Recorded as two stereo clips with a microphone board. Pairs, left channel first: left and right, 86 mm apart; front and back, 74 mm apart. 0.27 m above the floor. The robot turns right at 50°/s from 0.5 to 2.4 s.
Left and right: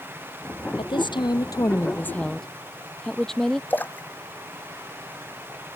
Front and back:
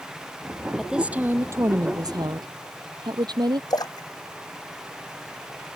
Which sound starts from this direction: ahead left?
A splash, at 3.7 s.